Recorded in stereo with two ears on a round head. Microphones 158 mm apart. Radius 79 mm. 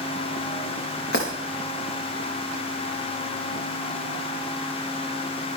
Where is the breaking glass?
60° left (ahead or behind), 6 m.